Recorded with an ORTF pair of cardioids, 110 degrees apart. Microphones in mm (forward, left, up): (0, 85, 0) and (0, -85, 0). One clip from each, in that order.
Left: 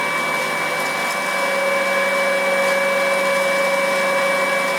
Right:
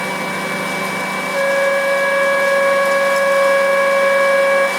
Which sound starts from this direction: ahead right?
A flute, at 1.3 s.